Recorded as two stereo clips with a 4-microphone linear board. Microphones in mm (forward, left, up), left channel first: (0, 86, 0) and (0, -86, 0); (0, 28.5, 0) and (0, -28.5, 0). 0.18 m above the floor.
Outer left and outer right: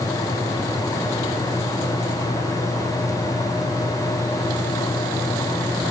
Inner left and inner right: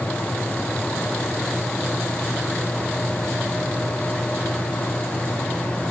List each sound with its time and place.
Only background noise.